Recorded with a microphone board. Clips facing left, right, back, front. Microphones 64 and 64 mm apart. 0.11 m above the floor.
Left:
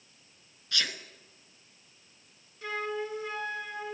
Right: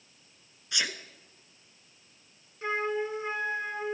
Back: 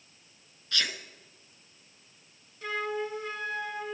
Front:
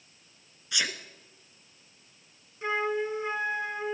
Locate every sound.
0.7 s a sneeze: 50° right, 1.1 m
2.6 s a flute: 45° right, 1.2 m